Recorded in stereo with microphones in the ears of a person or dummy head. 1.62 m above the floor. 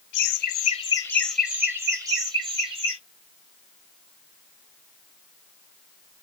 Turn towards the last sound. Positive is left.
turn(degrees=-30)  # may be behind; listen again after turning